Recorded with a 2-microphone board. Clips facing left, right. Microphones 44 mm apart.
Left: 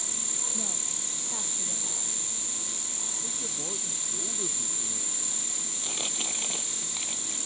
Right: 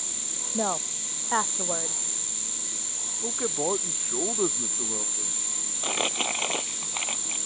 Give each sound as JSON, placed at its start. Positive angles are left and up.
{"t": 0.5, "sound": "a woman speaking", "side_deg": -65}
{"t": 3.2, "sound": "a man speaking", "side_deg": -55}
{"t": 5.8, "sound": "crumpling", "side_deg": -45}